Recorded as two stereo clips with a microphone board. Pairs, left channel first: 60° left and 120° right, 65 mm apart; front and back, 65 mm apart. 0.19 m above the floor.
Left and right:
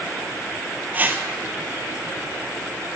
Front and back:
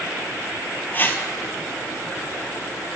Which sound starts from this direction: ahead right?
A whoosh, at 0.9 s.